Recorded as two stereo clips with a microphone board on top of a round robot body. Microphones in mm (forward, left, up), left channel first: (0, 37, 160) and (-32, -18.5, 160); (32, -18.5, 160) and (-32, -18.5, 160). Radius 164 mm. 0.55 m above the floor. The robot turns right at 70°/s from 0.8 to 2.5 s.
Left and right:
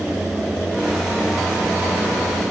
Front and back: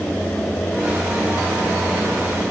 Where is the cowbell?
I don't hear a cowbell.